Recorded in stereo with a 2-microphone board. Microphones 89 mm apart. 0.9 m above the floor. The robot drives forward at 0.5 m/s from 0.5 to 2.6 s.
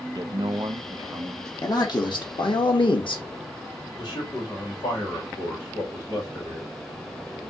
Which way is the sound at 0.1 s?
50° right (ahead or behind).